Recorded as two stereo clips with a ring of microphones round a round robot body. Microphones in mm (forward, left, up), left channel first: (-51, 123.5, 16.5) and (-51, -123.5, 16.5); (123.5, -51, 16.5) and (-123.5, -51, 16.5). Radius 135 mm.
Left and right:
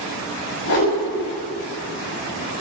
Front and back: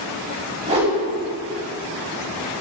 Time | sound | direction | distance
0.7 | a whoosh | 110° left | 5.5 m